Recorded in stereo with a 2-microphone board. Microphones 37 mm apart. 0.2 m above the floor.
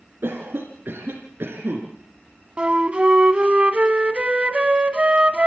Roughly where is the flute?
Right.